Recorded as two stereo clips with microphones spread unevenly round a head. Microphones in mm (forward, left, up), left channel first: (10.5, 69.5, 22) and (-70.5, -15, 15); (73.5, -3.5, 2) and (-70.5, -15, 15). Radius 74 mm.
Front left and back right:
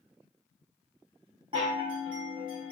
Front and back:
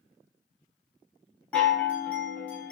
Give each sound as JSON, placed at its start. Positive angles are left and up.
{"t": 1.5, "sound": "a chime", "azimuth_deg": -75, "distance_m": 1.2}